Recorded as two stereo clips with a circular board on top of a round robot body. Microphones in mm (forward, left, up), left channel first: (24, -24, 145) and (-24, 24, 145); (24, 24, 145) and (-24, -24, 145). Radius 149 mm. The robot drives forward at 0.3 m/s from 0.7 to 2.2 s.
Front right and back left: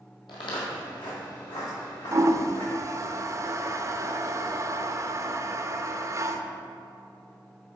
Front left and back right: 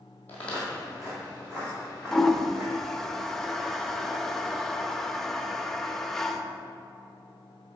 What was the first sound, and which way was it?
Footsteps, 25° right.